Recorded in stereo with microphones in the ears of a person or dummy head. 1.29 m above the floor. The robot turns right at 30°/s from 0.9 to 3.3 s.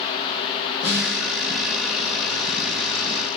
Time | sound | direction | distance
0.8 | a snare drum | 10° right (ahead or behind) | 1.6 m